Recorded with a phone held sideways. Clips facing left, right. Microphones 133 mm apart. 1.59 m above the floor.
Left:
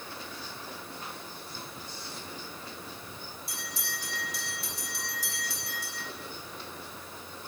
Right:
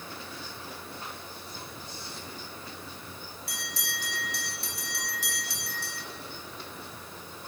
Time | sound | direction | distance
3.5 | a bell | 70° right (ahead or behind) | 4 m